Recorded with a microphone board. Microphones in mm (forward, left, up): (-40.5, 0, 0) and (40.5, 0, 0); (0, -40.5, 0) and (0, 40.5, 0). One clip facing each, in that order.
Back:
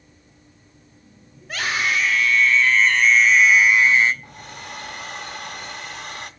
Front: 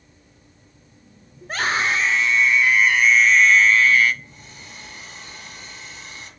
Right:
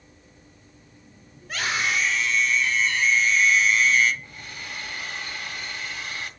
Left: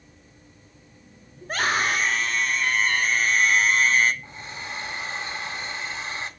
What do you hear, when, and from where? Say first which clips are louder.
1.4 s a scream: front 2 dB, left 3 dB; 45° left, 2.5 m; by 4.1 s 125° left, 1.7 m
4.2 s a hair dryer: back 7 dB, left 3 dB; 155° left, 1.5 m